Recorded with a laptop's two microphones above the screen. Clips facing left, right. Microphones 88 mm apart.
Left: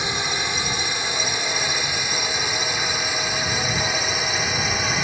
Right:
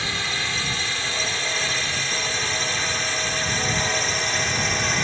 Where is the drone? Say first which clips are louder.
Left 2 dB; 20° left (ahead or behind); by 5.0 s 5° left (ahead or behind).